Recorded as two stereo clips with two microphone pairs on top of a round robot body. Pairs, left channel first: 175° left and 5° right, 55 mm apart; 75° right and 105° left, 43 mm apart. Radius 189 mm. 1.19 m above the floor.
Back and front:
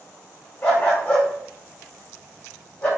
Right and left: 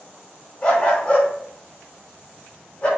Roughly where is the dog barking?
Behind right.